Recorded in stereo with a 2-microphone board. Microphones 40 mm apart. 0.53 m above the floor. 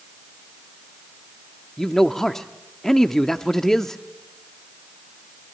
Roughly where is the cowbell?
I don't hear a cowbell.